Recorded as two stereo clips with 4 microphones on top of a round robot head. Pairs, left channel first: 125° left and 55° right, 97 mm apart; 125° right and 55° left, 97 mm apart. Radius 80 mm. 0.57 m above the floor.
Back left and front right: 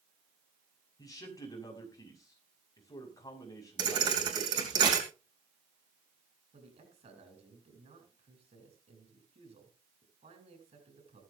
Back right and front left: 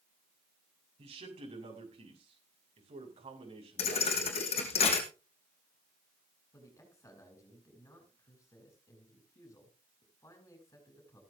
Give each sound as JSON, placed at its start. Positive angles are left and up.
{"t": 1.0, "sound": "a man speaking", "azimuth_deg": 70, "distance_m": 6.0}
{"t": 3.8, "sound": "a thud", "azimuth_deg": -105, "distance_m": 3.0}
{"t": 6.5, "sound": "a man speaking", "azimuth_deg": -65, "distance_m": 7.5}